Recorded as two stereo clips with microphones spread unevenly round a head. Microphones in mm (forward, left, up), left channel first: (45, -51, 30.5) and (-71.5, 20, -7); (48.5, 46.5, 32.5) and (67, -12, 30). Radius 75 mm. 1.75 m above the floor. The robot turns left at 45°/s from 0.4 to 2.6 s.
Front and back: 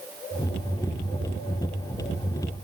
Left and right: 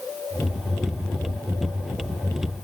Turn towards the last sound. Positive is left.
No sound to turn to.